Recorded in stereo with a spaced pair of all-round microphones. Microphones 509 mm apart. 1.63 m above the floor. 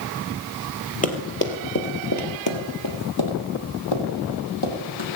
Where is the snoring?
I don't hear snoring.